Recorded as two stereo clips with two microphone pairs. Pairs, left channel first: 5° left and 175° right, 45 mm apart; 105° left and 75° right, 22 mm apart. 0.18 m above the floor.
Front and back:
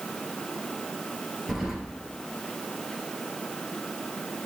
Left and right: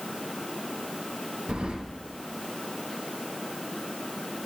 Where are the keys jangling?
90° right, 2 m.